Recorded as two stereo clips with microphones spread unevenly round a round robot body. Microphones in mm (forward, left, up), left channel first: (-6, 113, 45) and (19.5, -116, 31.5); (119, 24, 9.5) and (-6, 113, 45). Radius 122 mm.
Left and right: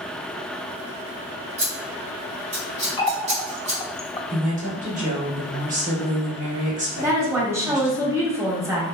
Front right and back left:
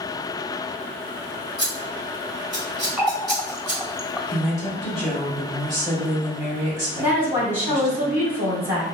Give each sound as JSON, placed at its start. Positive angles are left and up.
{"t": 1.6, "sound": "scissors", "azimuth_deg": -140, "distance_m": 1.6}
{"t": 3.0, "sound": "a running tap", "azimuth_deg": 35, "distance_m": 0.5}
{"t": 4.3, "sound": "a woman speaking", "azimuth_deg": -105, "distance_m": 1.6}
{"t": 7.0, "sound": "a woman speaking", "azimuth_deg": -125, "distance_m": 0.9}